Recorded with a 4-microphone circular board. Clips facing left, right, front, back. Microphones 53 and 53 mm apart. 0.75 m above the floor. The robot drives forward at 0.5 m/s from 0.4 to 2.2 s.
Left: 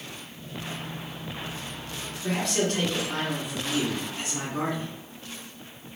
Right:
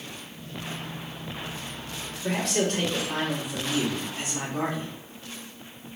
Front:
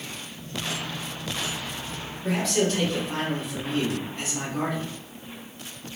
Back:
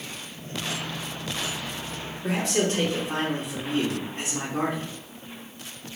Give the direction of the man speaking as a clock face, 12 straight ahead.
6 o'clock.